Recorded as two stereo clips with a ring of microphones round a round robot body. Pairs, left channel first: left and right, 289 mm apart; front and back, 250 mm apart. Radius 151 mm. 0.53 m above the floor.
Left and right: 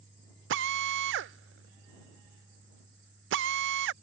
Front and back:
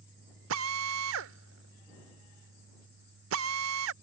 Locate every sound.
0.5 s a drill: 140° right